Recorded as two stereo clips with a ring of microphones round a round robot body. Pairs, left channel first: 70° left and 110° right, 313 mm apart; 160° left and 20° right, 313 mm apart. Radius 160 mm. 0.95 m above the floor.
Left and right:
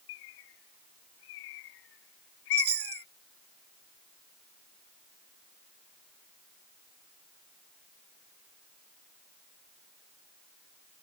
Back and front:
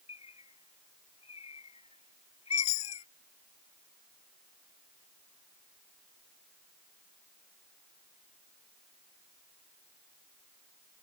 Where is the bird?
85° left.